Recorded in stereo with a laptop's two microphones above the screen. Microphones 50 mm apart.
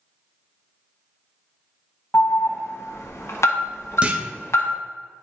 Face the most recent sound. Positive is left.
turn(degrees=-25)  # may be behind; listen again after turning